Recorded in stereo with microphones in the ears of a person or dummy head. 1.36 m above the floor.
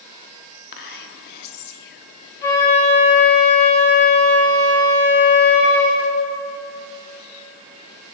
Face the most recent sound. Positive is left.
turn(degrees=15)  # may be behind; listen again after turning